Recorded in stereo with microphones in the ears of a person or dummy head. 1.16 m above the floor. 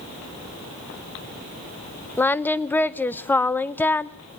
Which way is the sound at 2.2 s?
10° left (ahead or behind).